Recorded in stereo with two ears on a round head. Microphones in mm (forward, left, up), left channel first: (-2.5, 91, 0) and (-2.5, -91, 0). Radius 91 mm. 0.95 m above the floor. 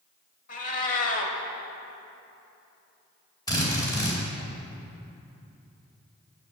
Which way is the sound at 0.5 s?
40° left (ahead or behind).